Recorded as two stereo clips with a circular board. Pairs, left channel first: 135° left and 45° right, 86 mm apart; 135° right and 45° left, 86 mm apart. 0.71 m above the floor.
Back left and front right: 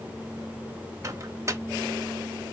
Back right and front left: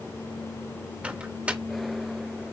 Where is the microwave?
20° right, 0.5 m.